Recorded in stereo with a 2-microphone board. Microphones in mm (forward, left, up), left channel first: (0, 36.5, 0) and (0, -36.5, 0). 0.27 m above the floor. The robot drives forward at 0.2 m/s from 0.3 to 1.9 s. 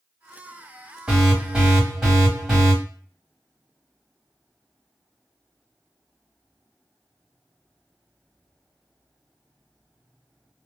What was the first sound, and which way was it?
An alarm, 10° right (ahead or behind).